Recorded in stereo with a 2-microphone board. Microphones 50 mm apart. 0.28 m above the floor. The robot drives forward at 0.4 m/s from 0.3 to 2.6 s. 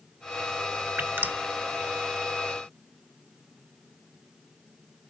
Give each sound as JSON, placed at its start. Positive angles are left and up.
{"t": 1.0, "sound": "dripping", "side_deg": -40, "distance_m": 0.7}